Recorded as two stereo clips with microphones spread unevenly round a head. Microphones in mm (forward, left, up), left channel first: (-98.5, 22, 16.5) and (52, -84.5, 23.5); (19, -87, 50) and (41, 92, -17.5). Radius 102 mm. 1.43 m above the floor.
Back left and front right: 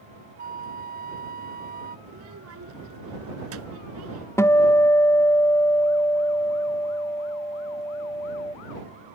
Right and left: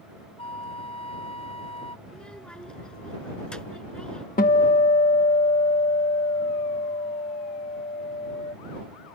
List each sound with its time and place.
0.4 s a flute: 65° right
2.1 s a child speaking: 15° right
4.4 s a guitar: 140° right